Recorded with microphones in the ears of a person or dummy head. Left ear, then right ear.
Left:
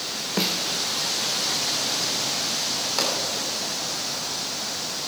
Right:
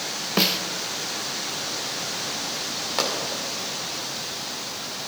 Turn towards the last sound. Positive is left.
turn(degrees=-10)  # may be behind; listen again after turning